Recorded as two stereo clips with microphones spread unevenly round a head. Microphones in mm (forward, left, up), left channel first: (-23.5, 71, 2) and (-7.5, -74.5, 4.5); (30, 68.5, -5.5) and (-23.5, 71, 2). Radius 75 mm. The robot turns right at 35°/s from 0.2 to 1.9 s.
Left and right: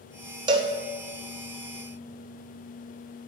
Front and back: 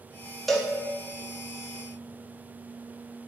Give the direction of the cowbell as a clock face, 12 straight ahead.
3 o'clock.